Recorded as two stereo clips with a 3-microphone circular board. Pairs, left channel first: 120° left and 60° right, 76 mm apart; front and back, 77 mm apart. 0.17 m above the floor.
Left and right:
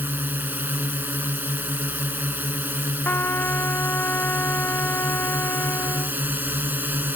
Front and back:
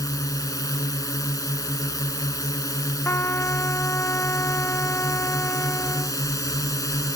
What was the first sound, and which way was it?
A drone, 5° right.